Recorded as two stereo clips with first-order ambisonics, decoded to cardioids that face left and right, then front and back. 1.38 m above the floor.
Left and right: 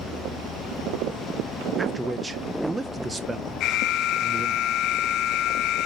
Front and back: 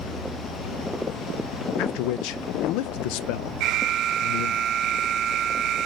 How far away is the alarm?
About 0.5 m.